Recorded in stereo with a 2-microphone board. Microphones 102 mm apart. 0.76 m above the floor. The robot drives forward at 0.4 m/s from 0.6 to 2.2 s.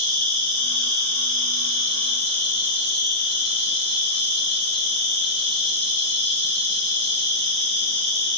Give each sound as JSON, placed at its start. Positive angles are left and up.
{"t": 0.0, "sound": "an insect", "side_deg": -55, "distance_m": 1.1}